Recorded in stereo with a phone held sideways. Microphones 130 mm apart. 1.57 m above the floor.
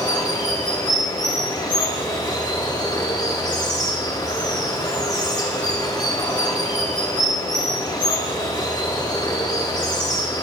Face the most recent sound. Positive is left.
turn(degrees=35)  # may be behind; listen again after turning